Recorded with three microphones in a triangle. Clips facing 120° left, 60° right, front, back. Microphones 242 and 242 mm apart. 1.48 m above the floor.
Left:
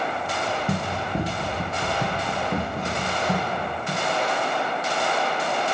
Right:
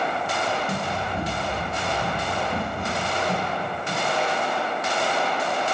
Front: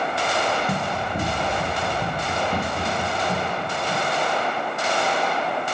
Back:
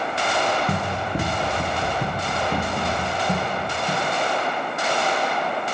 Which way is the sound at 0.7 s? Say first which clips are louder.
Left 1 dB, back 1 dB; 135° left.